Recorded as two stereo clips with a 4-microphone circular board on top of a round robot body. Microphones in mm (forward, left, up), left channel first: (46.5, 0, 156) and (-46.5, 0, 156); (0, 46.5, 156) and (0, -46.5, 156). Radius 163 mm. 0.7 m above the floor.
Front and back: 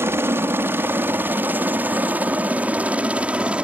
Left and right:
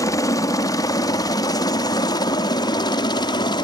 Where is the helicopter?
125° left; by 3.6 s 105° left.